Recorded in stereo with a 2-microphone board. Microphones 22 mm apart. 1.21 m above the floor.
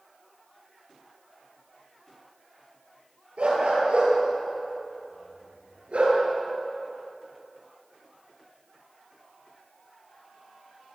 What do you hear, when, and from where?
3.4 s a dog barking: 65° right (ahead or behind), 9 m; by 6.2 s 70° right (ahead or behind), 7.5 m